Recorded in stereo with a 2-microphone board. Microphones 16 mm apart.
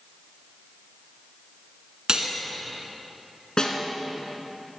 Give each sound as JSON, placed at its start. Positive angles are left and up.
{"t": 2.1, "sound": "cutlery clinking", "side_deg": -55, "distance_m": 1.7}
{"t": 3.6, "sound": "a snare drum", "side_deg": 50, "distance_m": 1.5}